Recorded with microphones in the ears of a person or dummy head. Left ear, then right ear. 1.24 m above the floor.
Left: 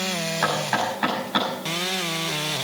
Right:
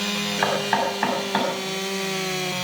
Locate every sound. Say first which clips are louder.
0.4 s knocking: right 2 dB; 20° right (ahead or behind), 6 m